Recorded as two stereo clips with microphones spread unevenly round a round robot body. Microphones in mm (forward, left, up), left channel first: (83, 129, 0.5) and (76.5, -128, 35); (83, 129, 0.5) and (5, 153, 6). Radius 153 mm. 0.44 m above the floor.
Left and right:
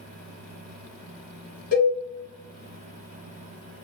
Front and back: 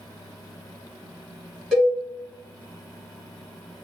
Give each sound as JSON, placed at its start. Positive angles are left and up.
{"t": 1.7, "sound": "a cowbell", "azimuth_deg": 70, "distance_m": 1.4}